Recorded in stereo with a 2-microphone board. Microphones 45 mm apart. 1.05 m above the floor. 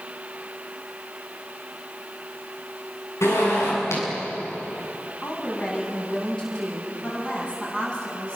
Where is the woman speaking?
20° left (ahead or behind), 9 m.